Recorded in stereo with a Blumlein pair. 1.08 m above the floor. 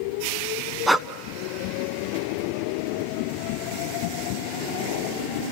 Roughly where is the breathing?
Ahead.